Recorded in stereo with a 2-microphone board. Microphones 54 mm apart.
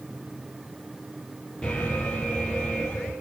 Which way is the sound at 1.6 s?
15° left (ahead or behind).